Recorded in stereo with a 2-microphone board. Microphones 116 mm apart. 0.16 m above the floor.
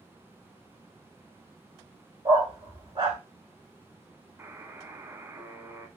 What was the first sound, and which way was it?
A dog barking, 40° right (ahead or behind).